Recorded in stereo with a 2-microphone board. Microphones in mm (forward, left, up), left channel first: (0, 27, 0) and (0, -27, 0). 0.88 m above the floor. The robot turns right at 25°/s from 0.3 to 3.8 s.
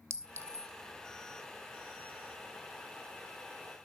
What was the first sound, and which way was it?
A clink, 60° right (ahead or behind).